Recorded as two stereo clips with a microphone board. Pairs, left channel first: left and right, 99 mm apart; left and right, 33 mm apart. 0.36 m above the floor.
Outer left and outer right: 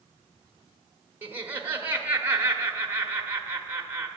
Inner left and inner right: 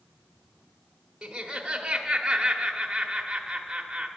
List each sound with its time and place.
1.2 s laughter: 20° right (ahead or behind), 0.9 m